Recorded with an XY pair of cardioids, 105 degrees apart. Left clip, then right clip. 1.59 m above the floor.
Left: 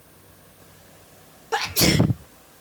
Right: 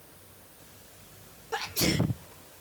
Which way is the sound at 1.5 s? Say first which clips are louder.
Left 8 dB; 55° left.